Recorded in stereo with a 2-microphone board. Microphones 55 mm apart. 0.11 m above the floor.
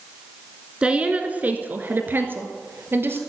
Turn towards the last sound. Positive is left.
turn(degrees=-45)  # may be behind; listen again after turning